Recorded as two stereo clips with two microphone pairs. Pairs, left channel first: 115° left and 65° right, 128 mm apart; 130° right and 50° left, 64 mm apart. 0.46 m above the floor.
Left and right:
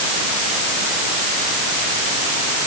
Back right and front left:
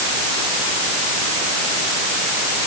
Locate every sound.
Only background noise.